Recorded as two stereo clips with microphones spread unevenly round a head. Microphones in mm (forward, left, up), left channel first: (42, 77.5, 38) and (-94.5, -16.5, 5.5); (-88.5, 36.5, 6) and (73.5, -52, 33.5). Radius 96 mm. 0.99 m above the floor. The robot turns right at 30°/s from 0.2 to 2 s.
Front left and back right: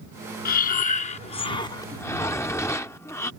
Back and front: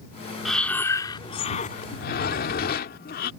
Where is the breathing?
60° left; by 3.3 s 105° left.